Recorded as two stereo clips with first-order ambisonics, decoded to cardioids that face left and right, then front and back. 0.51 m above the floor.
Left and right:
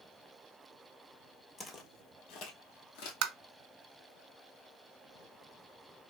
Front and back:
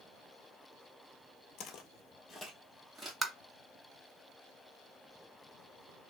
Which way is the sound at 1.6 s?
20° left.